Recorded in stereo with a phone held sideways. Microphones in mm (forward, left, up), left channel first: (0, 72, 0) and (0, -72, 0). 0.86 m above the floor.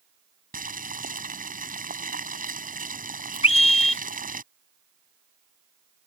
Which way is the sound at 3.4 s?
45° left (ahead or behind).